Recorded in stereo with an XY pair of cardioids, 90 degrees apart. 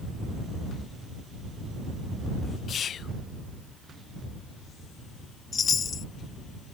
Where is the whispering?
60° left.